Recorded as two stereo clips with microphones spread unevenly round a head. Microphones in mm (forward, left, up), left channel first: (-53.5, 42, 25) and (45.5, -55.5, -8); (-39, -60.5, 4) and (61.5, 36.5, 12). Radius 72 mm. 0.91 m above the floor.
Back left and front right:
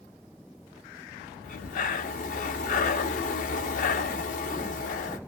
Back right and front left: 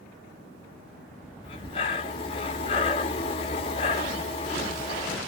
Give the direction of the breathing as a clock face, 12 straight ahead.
6 o'clock.